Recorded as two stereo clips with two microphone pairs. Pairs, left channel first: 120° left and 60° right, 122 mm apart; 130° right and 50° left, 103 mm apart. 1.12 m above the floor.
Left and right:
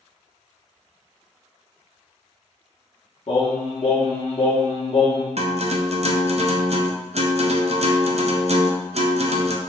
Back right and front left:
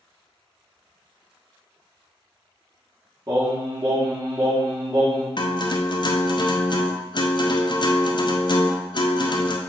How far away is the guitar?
About 0.5 m.